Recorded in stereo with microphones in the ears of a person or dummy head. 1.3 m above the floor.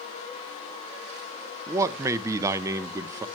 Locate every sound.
1.7 s a man speaking: 15° right (ahead or behind), 0.8 m